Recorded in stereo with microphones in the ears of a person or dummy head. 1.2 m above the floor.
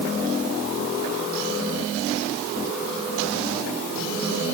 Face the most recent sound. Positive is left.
No sound to turn to.